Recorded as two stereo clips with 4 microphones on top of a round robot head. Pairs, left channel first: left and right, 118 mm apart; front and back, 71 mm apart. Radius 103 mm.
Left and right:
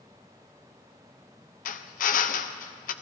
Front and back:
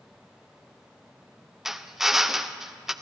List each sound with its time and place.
1.6 s a drill: 95° left, 0.7 m